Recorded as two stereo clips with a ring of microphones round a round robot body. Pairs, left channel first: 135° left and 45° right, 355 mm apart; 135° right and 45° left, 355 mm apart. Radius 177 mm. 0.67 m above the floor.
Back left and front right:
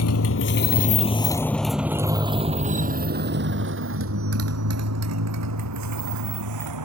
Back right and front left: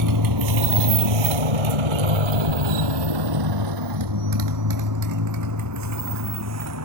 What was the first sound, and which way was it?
A motorcycle, 85° left.